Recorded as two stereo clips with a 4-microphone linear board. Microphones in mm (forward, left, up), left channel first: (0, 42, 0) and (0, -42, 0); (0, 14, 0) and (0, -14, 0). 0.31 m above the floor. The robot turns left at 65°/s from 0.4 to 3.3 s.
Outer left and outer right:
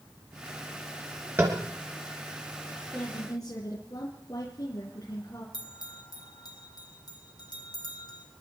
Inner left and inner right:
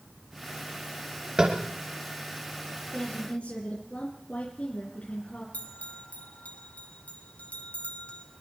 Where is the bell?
60° left (ahead or behind), 2 m.